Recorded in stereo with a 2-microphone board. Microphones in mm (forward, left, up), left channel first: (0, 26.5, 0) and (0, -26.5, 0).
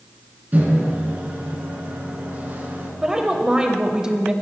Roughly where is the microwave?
Right.